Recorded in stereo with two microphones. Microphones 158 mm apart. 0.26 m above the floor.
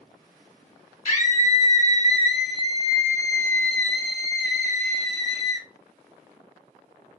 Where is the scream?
50° left (ahead or behind), 2 m; by 5.7 s 35° right (ahead or behind), 1.5 m.